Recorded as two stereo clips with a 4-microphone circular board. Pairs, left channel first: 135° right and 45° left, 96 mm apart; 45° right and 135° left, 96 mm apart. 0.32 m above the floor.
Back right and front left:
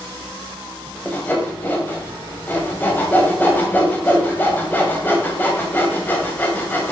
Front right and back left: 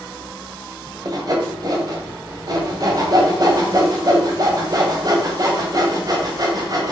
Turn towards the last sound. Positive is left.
turn(degrees=165)